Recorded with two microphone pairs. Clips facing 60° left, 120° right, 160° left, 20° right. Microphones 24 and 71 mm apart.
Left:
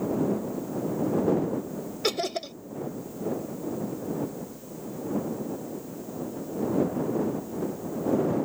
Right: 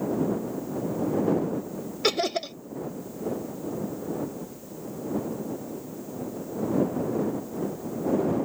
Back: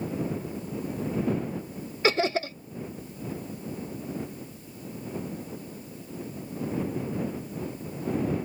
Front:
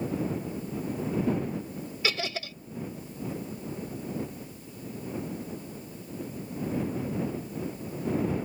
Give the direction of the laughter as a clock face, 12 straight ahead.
6 o'clock.